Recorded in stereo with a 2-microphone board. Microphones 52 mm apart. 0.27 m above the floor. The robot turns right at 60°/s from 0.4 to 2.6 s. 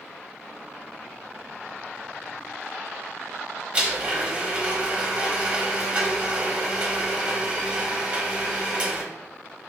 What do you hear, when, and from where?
3.7 s a blender: 20° right (ahead or behind), 0.9 m